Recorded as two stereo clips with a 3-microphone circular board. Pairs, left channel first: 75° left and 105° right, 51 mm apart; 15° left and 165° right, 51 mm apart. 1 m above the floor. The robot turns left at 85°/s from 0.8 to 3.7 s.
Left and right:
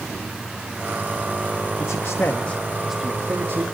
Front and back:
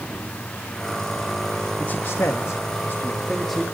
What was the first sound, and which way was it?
A man speaking, 70° left.